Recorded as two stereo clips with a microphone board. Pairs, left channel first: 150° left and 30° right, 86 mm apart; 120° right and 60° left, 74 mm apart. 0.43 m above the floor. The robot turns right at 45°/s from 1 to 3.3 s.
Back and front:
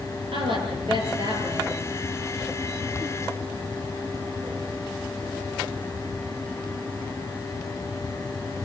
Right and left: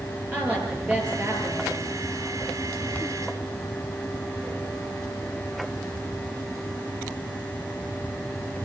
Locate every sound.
0.3 s a woman speaking: 10° right, 7 m; by 1.8 s 25° left, 7 m